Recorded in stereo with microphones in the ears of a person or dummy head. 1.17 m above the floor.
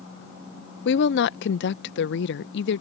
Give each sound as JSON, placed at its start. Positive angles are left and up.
{"t": 0.8, "sound": "a woman speaking", "side_deg": 55}